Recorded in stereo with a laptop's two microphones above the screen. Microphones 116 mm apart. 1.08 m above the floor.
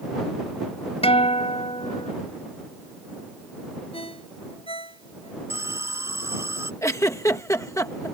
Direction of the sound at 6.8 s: 25° left (ahead or behind).